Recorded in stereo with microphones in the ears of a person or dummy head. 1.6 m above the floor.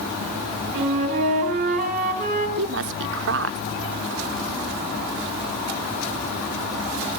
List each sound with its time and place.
0.7 s a flute: 40° right (ahead or behind), 7 m
2.6 s a woman speaking: 70° right (ahead or behind), 0.9 m